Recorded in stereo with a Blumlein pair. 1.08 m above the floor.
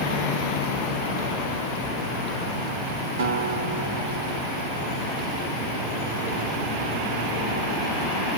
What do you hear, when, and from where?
3.2 s a guitar: 55° right, 0.6 m